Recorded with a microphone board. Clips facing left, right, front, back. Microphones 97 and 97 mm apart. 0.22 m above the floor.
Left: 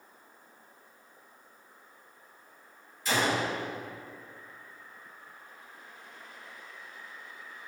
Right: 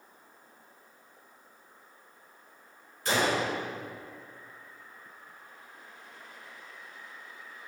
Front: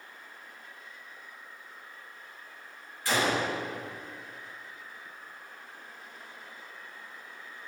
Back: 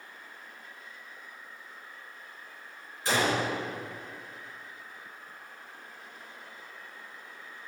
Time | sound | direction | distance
3.0 | a gunshot | 115° right | 4 m